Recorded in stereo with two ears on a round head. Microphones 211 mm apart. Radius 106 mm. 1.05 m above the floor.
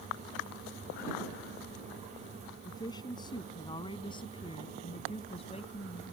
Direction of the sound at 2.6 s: 15° left (ahead or behind).